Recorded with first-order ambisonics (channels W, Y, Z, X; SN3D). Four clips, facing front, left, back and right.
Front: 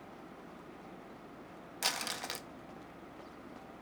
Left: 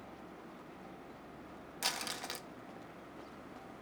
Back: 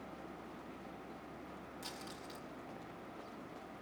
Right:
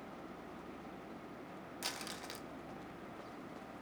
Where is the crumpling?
20° left, 0.8 m.